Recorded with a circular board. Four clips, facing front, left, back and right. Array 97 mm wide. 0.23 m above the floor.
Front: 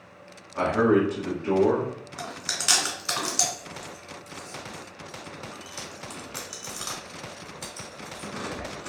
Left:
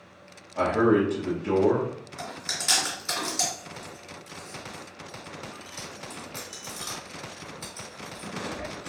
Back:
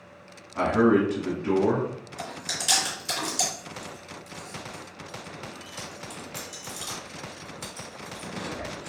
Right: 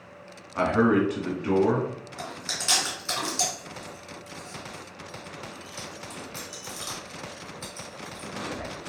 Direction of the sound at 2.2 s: Straight ahead.